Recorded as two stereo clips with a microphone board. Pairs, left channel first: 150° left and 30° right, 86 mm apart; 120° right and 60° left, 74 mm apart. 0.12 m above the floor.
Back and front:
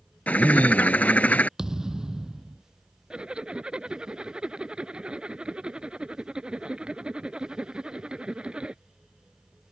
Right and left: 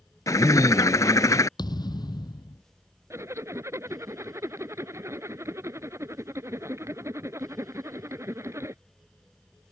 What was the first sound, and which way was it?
A bird, 140° right.